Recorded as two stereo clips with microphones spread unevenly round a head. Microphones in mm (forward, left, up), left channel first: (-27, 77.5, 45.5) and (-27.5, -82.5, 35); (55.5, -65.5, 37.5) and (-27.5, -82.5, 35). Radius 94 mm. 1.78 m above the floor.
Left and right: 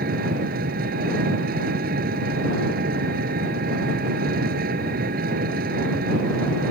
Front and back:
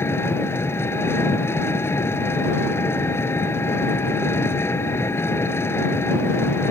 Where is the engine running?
50° right.